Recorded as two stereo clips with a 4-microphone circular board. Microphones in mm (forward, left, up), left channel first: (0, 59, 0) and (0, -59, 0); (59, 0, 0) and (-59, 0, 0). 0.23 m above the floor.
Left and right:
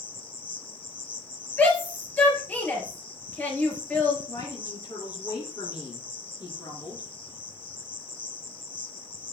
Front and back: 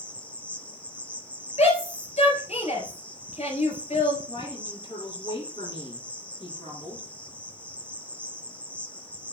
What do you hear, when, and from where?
0.0 s an insect: 75° left, 1.1 m
1.6 s a shout: 15° left, 4.5 m
4.3 s a woman speaking: 35° left, 4.5 m